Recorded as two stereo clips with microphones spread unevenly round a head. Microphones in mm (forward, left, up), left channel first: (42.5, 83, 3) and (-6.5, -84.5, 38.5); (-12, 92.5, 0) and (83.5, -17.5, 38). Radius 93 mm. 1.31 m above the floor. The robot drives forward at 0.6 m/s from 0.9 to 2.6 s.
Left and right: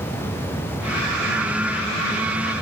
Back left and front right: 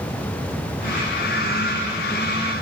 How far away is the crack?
No crack in this recording.